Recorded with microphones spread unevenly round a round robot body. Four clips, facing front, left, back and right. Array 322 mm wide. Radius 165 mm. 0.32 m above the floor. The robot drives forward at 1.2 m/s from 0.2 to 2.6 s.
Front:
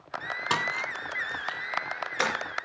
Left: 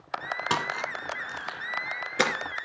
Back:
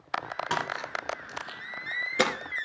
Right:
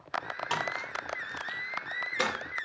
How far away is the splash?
About 1.9 m.